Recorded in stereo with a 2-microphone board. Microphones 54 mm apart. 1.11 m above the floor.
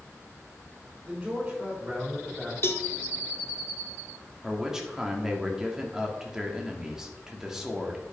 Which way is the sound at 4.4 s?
10° right (ahead or behind).